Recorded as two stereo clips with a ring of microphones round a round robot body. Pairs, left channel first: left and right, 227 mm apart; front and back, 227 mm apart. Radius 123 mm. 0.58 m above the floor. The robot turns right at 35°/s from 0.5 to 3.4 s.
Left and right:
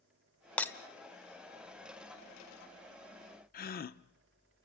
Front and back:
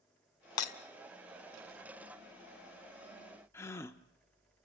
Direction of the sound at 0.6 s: 5° left.